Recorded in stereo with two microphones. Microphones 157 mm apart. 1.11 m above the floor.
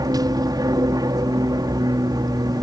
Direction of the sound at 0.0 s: 25° right (ahead or behind).